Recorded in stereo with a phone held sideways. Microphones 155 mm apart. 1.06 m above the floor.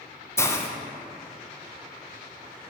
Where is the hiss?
15° left (ahead or behind), 0.7 m.